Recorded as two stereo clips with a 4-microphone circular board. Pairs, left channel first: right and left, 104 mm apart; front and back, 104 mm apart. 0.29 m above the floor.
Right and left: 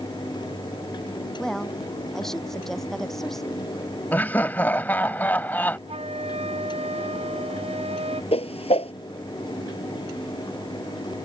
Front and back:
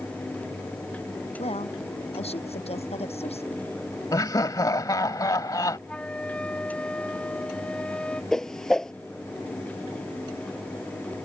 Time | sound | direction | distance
1.4 | a woman speaking | 5° right | ?
4.1 | laughter | 25° right | ?
5.9 | a flute | 80° left | ?
8.3 | a whoosh | 85° right | ?